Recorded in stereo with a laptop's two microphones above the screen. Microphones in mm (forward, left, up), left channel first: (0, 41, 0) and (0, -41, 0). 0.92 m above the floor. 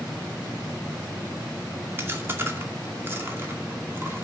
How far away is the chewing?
About 2 m.